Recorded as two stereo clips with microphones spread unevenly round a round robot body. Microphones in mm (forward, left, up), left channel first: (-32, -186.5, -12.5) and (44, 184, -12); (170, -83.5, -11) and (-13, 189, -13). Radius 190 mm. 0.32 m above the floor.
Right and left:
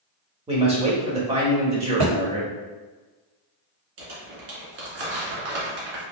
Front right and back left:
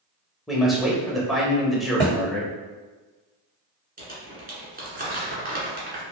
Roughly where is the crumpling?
Ahead left.